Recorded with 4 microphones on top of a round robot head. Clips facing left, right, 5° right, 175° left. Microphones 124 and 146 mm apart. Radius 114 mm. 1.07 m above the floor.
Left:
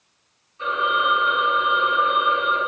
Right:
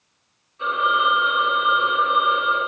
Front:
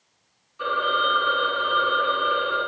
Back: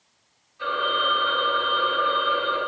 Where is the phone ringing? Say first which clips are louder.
Right 1 dB, front 1 dB; 25° right, 1.7 m.